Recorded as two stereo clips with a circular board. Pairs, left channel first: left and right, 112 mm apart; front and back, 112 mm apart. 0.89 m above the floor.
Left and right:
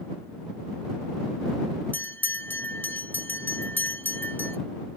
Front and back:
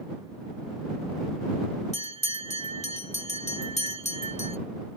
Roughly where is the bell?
Ahead.